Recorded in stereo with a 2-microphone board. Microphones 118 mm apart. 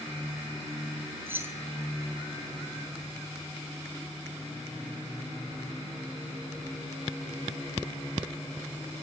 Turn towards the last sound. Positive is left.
turn(degrees=-20)  # may be behind; listen again after turning